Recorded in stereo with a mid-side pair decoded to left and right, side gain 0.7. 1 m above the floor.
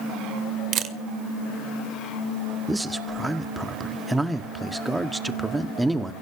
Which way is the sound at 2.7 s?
5° right.